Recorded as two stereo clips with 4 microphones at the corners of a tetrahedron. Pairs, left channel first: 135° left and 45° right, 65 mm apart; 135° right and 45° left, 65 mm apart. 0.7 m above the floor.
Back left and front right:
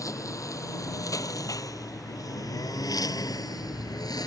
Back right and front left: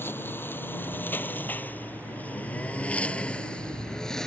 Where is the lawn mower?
170° left; by 4.3 s 140° left.